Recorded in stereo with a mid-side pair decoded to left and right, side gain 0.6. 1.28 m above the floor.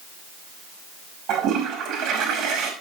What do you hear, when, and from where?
1.3 s a toilet flushing: 70° right, 5 m